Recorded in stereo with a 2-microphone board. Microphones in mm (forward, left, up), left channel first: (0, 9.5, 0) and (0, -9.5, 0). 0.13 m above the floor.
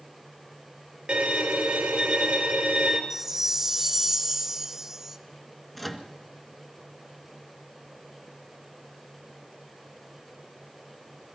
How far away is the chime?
About 0.7 m.